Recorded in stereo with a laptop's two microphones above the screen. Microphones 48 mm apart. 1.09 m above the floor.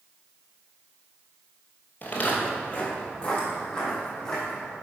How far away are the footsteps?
About 1.3 m.